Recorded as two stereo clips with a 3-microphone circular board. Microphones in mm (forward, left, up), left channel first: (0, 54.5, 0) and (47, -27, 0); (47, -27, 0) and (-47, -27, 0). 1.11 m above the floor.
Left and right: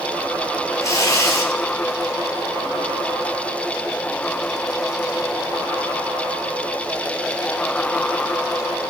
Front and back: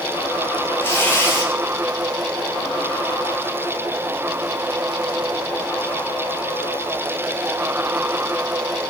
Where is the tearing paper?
65° left, 3.5 m.